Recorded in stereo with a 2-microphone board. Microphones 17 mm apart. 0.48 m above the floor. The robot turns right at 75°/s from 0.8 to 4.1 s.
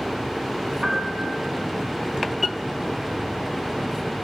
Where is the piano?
105° right, 4.5 m; by 1.5 s 55° right, 4.5 m.